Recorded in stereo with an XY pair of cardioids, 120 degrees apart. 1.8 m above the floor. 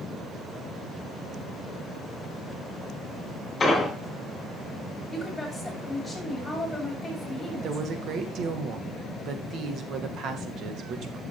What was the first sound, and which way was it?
An explosion, 25° left.